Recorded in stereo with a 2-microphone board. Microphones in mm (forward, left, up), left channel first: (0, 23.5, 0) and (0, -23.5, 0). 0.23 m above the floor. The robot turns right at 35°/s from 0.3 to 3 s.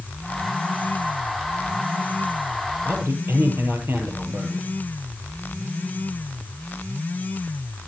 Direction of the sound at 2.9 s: 45° right (ahead or behind).